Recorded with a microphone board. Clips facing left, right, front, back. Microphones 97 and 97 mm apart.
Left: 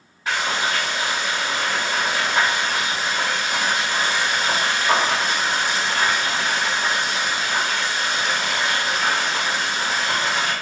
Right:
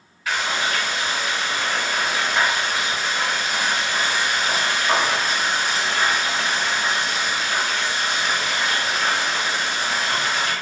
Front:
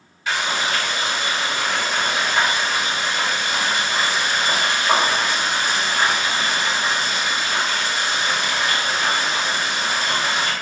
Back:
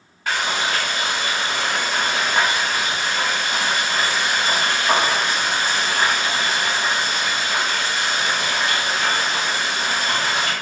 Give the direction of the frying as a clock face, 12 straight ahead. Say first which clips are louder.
Left 1 dB, even; 7 o'clock.